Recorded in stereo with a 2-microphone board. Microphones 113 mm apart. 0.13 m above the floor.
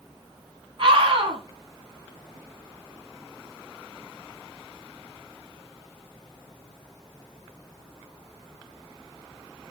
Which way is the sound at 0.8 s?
50° right (ahead or behind).